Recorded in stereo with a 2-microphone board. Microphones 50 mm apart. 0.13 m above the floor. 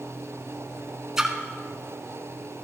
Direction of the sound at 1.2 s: 10° right (ahead or behind).